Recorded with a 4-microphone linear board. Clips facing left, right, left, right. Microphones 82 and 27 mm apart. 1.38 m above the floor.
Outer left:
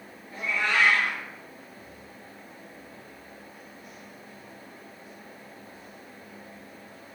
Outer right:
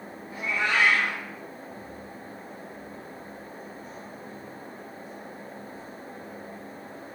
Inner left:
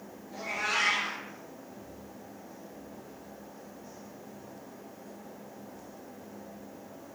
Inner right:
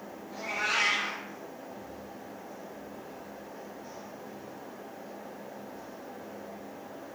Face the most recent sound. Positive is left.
turn(degrees=-15)  # may be behind; listen again after turning